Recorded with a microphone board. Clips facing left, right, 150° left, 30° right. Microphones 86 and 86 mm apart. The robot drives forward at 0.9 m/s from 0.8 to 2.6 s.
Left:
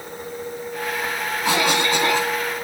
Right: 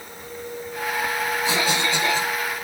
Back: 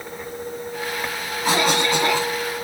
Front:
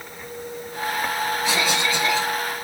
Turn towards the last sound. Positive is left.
turn(degrees=130)